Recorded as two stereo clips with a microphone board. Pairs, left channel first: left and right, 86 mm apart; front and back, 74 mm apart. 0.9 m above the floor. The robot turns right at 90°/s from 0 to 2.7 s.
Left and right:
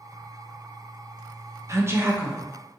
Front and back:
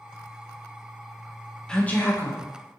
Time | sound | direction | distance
1.7 | a woman speaking | 75° right | 0.7 m